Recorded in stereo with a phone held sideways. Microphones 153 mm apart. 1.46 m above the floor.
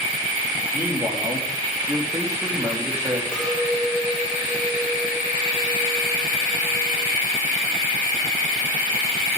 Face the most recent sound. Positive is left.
turn(degrees=5)  # may be behind; listen again after turning